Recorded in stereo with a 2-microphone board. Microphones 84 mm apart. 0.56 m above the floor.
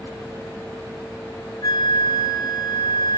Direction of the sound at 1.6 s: 55° left (ahead or behind).